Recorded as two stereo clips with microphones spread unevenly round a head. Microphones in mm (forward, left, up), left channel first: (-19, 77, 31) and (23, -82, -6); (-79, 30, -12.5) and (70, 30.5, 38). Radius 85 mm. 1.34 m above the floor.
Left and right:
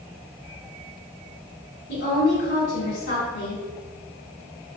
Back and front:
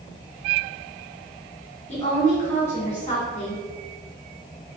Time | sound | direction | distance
1.9 | a woman speaking | 135° left | 1.9 m